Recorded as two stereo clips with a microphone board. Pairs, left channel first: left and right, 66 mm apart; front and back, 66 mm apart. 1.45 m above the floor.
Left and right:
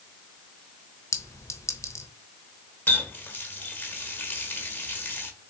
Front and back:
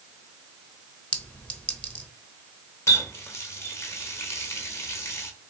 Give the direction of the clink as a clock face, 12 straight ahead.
10 o'clock.